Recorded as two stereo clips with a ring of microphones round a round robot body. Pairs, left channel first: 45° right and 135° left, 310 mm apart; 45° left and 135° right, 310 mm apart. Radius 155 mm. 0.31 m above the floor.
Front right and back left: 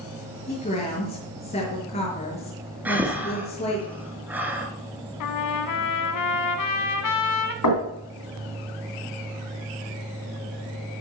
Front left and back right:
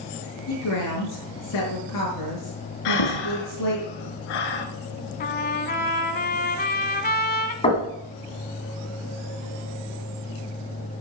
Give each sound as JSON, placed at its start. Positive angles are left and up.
{"t": 0.5, "sound": "a woman speaking", "azimuth_deg": 20, "distance_m": 4.5}
{"t": 2.9, "sound": "breathing", "azimuth_deg": 50, "distance_m": 1.6}
{"t": 5.2, "sound": "a trumpet", "azimuth_deg": -15, "distance_m": 0.9}
{"t": 7.6, "sound": "knocking", "azimuth_deg": -25, "distance_m": 2.5}